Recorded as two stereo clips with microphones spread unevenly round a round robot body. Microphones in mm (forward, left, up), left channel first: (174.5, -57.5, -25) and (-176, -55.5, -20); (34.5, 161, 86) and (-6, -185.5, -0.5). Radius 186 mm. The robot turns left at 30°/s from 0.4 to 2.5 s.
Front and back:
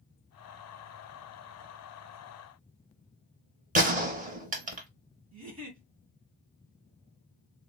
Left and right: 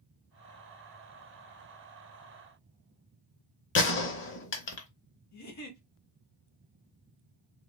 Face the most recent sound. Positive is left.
turn(degrees=120)